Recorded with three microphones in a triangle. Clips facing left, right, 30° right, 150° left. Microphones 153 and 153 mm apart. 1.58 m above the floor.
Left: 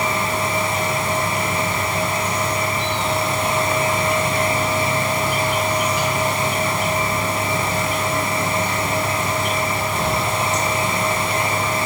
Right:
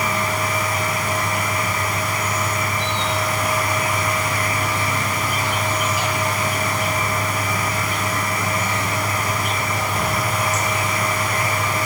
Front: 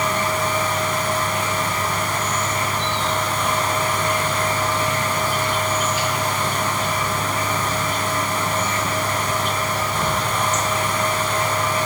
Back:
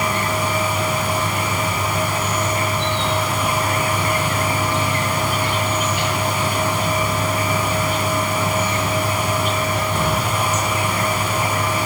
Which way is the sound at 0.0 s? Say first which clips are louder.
Left 1 dB, even; straight behind.